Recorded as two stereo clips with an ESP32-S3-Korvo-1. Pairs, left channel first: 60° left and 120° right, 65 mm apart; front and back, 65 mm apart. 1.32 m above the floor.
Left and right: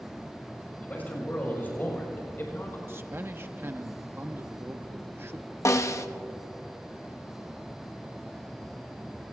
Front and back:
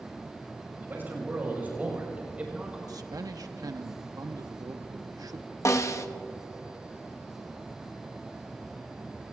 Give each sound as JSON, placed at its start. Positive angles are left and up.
{"t": 0.8, "sound": "a man speaking", "azimuth_deg": 120, "distance_m": 6.0}
{"t": 2.9, "sound": "a man speaking", "azimuth_deg": -170, "distance_m": 0.9}
{"t": 5.7, "sound": "a snare drum", "azimuth_deg": 30, "distance_m": 0.7}